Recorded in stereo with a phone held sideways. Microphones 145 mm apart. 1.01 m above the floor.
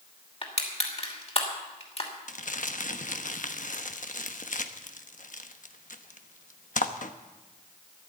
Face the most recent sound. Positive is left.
turn(degrees=65)  # may be behind; listen again after turning